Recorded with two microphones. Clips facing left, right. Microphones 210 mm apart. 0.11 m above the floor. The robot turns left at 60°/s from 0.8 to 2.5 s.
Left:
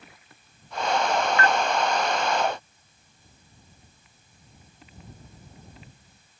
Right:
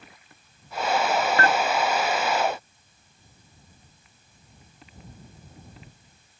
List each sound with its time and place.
1.4 s dishes clattering: 35° right (ahead or behind)